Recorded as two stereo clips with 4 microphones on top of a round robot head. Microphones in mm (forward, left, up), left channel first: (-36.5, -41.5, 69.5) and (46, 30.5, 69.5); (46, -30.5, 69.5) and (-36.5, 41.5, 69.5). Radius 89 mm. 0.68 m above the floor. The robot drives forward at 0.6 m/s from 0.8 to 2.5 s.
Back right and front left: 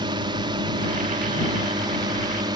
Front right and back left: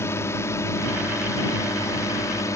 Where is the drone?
15° left; by 2.6 s 10° left.